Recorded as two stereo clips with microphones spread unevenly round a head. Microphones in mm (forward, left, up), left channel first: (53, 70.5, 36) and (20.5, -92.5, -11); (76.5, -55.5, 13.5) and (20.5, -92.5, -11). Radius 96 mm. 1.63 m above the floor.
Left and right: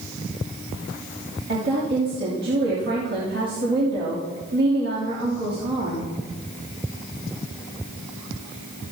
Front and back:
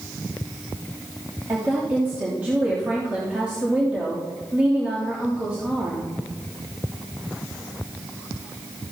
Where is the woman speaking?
80° right, 3 m.